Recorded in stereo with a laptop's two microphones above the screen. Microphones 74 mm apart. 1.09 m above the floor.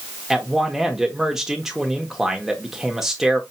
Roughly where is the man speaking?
Centre.